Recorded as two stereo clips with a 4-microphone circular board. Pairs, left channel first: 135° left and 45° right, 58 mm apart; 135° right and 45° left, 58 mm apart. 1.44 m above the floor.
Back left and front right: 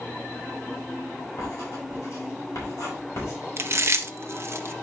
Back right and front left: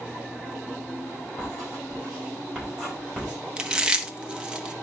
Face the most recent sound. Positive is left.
turn(degrees=-25)